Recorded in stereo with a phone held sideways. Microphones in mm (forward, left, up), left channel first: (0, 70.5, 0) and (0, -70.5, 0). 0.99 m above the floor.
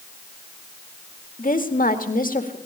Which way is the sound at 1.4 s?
70° left (ahead or behind).